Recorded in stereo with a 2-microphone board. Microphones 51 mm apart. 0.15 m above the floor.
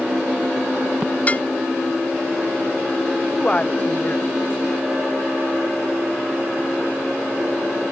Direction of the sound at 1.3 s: 30° left (ahead or behind).